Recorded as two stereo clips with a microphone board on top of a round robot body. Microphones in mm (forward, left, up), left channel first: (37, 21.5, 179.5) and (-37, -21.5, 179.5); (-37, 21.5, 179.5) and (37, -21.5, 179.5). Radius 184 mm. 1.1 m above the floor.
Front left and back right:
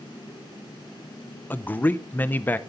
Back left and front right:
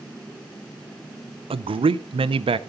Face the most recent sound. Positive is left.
turn(degrees=-40)